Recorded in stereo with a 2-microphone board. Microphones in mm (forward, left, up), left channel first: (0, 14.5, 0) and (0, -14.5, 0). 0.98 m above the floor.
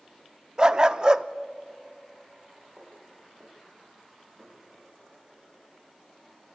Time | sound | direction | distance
0.6 | a dog barking | 30° right (ahead or behind) | 0.5 m
2.8 | footsteps | 80° right | 7 m